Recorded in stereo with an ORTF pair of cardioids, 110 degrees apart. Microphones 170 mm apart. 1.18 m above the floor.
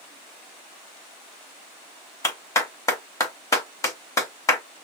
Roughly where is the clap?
Ahead.